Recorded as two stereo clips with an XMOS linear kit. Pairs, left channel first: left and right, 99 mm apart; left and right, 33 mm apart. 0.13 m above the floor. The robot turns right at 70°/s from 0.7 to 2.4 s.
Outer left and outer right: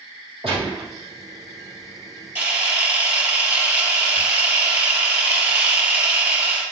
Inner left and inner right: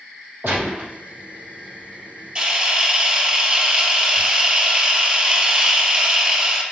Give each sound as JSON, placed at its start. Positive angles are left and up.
{"t": 0.4, "sound": "a gunshot", "side_deg": -65, "distance_m": 5.0}
{"t": 2.4, "sound": "a camera shutter", "side_deg": -20, "distance_m": 3.0}